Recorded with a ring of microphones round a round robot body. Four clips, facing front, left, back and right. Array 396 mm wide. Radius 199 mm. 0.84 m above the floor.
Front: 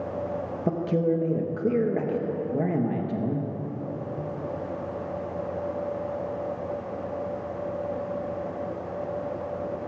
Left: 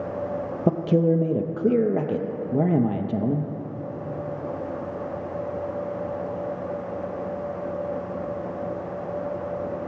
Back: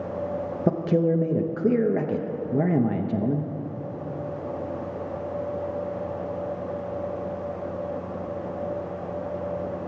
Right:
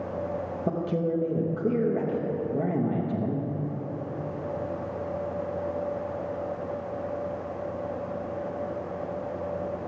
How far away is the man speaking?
About 0.9 m.